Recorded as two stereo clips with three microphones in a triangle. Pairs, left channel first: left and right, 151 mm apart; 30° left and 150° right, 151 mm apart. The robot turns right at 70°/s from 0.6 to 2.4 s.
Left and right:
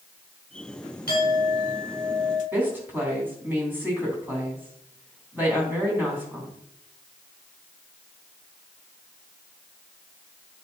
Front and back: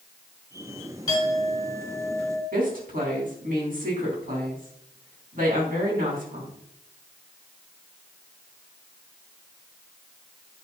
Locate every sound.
1.1 s a clink: 95° left, 4.5 m; by 2.4 s 175° right, 4.5 m
2.5 s a woman speaking: 165° right, 3.5 m